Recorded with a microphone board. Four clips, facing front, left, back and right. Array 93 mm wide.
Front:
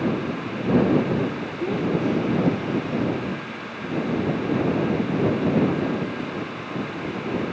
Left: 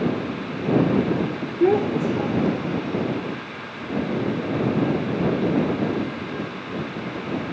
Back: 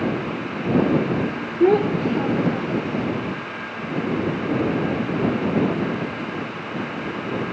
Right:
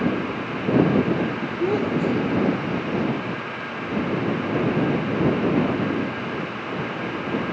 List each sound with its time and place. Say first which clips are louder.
1.6 s a child speaking: left 4 dB, back 7 dB; 145° left; by 3.1 s 175° right